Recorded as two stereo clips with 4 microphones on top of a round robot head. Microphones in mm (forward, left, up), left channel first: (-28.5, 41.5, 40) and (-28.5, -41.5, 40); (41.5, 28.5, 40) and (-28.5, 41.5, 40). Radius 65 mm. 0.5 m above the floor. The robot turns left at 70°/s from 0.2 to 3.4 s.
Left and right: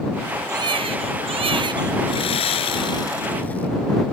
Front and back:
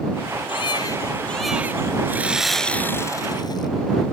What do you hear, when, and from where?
0.5 s a baby crying: 35° right; by 2.0 s 135° right
2.1 s sawing: 110° left; by 3.7 s 15° left